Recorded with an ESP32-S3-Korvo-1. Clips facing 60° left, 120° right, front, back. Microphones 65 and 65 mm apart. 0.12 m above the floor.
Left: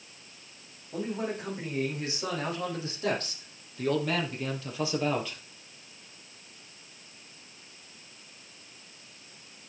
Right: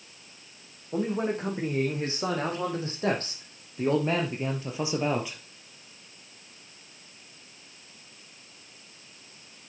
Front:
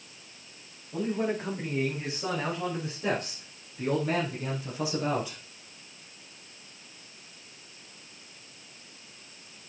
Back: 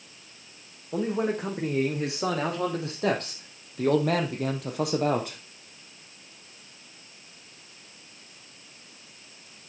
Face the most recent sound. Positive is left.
turn(degrees=165)